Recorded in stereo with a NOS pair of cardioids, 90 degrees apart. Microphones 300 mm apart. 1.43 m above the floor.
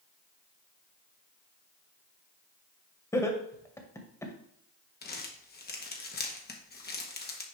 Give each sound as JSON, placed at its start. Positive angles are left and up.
{"t": 3.1, "sound": "laughter", "azimuth_deg": 10, "distance_m": 1.8}
{"t": 5.0, "sound": "crumpling", "azimuth_deg": 35, "distance_m": 1.5}